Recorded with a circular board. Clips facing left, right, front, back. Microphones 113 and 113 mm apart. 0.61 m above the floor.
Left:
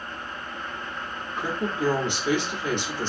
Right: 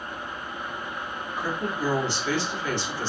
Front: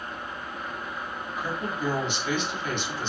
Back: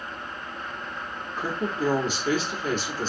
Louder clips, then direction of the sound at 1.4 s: Left 2 dB, back 4 dB; 150° left.